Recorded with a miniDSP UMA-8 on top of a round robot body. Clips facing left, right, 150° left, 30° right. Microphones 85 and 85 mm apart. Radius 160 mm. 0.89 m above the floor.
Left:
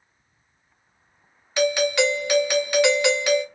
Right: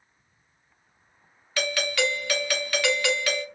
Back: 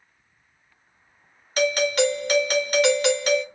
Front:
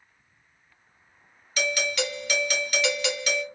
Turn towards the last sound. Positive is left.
turn(degrees=155)